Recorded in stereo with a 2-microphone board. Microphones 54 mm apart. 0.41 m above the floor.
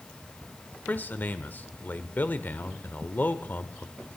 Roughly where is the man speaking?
Left.